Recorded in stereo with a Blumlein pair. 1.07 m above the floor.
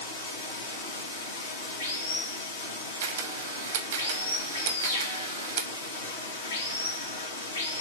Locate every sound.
0.0 s running water: 70° left, 0.9 m
3.0 s a camera shutter: 60° right, 0.7 m